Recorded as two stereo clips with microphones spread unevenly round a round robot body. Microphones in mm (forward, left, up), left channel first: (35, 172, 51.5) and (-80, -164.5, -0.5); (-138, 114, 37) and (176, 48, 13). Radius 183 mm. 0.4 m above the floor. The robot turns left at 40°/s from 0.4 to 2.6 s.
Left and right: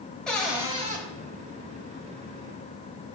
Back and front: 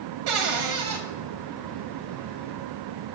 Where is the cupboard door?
20° right, 1.0 m; by 1.0 s 45° right, 1.0 m.